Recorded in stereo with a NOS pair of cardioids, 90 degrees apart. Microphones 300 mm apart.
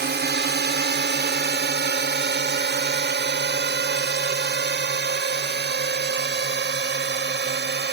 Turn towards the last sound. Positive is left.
turn(degrees=-35)